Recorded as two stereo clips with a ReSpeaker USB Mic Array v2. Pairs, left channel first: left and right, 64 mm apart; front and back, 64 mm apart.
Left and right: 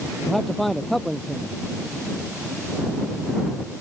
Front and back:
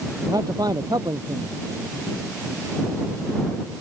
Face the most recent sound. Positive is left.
turn(degrees=180)